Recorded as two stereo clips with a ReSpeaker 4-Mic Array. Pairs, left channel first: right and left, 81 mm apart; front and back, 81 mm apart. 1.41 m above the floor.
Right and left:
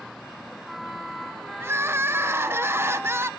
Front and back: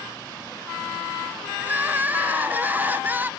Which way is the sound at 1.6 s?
125° left.